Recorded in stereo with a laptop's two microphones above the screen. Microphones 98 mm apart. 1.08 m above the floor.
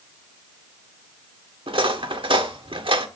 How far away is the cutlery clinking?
About 1.4 m.